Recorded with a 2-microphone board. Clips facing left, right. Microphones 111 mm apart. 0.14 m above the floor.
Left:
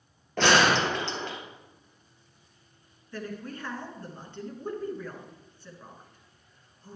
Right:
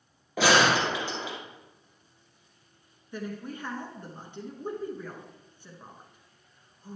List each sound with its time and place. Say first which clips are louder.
0.4 s a gunshot: even; 10° right (ahead or behind), 2 m
3.1 s a woman speaking: right 1 dB; 20° right (ahead or behind), 1.9 m